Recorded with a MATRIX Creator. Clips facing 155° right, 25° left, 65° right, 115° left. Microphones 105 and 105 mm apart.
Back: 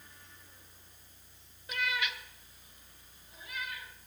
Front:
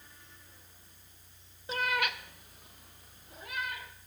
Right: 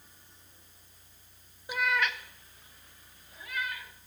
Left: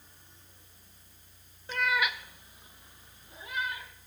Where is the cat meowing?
5° right, 0.5 m; by 3.9 s 50° left, 3 m.